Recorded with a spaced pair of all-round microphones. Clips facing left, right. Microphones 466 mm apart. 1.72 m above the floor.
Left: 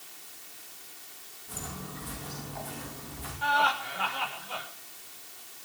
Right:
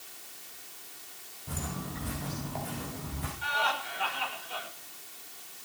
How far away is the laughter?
About 6 m.